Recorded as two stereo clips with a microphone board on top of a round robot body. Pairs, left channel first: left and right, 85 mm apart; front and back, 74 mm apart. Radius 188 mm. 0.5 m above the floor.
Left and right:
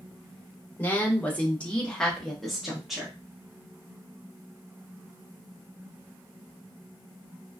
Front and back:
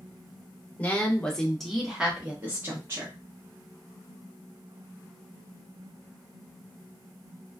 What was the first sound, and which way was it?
A woman speaking, 45° left.